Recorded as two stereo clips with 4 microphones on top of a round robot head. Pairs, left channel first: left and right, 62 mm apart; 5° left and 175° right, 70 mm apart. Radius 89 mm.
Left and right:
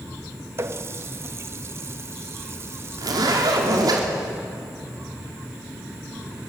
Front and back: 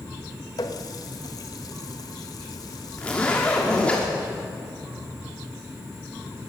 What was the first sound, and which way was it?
A running tap, 45° right.